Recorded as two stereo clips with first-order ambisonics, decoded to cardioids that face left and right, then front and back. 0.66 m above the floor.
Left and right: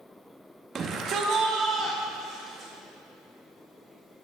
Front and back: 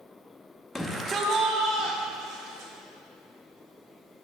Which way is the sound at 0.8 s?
75° right.